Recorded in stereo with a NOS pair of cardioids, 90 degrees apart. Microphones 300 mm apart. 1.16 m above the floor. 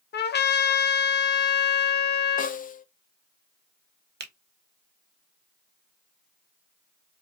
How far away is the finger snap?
About 1.0 m.